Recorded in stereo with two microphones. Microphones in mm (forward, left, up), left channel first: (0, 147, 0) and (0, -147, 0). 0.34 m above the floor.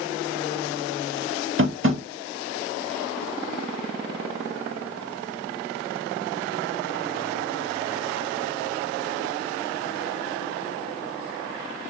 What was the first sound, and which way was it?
Tapping, 45° right (ahead or behind).